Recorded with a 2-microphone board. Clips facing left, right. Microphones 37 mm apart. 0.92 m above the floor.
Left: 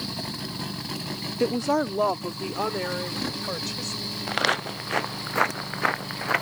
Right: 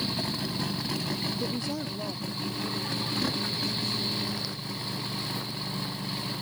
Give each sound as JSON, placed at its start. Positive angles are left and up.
{"t": 1.4, "sound": "a woman speaking", "side_deg": 70}
{"t": 4.3, "sound": "footsteps", "side_deg": 70}